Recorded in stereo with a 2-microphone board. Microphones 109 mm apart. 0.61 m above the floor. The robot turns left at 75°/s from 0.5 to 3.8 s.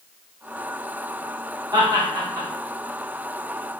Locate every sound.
1.7 s laughter: 40° right (ahead or behind), 1.4 m; by 2.5 s 25° right (ahead or behind), 1.4 m